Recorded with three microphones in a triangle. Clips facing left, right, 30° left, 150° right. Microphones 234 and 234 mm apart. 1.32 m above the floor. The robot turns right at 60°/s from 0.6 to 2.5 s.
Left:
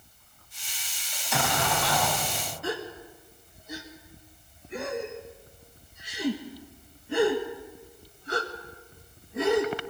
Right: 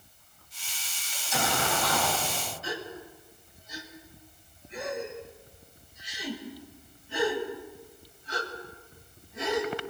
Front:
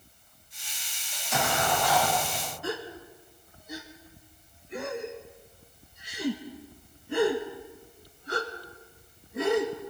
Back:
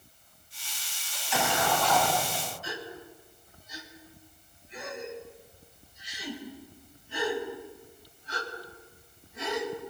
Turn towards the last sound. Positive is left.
turn(degrees=60)